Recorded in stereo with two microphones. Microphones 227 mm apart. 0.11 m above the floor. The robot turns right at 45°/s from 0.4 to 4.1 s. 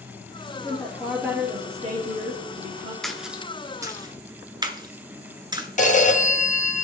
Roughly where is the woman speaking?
Behind.